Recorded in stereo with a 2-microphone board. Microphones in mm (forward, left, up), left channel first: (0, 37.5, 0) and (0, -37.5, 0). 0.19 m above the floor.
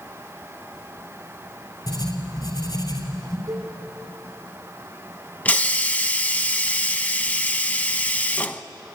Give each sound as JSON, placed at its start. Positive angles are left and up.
{"t": 1.9, "sound": "writing", "side_deg": 70, "distance_m": 4.0}
{"t": 3.5, "sound": "a cowbell", "side_deg": -50, "distance_m": 6.0}
{"t": 5.5, "sound": "a hiss", "side_deg": 20, "distance_m": 0.8}